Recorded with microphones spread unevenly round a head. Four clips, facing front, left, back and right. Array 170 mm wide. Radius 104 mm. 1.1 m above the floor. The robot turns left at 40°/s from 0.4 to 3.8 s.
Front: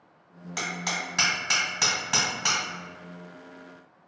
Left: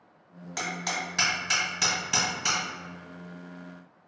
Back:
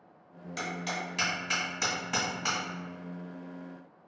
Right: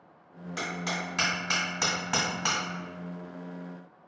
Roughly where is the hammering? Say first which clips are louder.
Left 1 dB, front 2 dB; ahead left.